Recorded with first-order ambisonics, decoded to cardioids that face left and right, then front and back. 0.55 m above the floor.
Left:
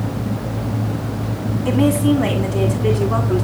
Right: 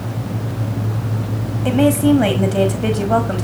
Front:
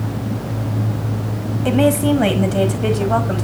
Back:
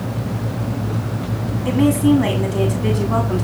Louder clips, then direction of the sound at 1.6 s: Right 3 dB, front 1 dB; 40° right.